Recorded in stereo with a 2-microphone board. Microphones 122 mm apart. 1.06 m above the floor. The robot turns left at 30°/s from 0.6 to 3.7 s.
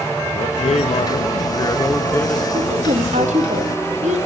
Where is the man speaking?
65° left, 1.0 m; by 2.4 s 10° left, 1.0 m.